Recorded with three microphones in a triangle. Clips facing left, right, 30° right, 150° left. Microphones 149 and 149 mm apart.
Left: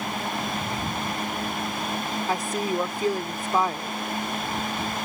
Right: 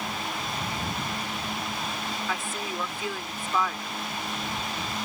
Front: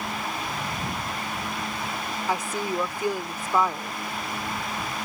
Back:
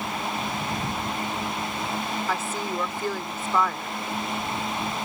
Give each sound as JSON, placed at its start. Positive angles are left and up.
{"t": 2.3, "sound": "a woman speaking", "azimuth_deg": 40}